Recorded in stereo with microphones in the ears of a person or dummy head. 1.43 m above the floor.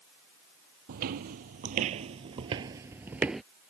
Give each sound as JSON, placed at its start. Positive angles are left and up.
{"t": 0.9, "sound": "footsteps", "side_deg": -50}